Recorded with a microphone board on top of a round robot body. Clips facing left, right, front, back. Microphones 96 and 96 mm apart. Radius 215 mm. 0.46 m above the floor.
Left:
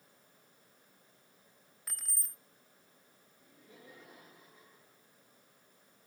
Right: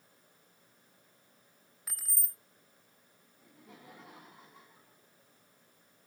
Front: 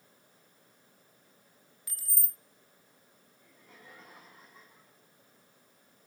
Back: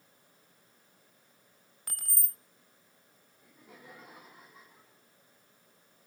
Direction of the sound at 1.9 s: 175° right.